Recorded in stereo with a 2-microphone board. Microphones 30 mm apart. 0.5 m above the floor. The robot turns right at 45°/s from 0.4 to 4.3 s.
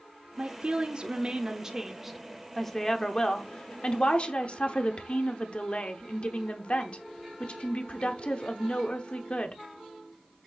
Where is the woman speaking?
85° right, 0.8 m; by 9.6 s 90° left, 0.8 m.